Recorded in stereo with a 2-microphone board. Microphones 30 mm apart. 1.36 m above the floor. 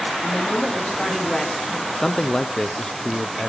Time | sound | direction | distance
0.2 | a woman speaking | 45° left (ahead or behind) | 3 m
2.0 | a man speaking | 25° left (ahead or behind) | 0.5 m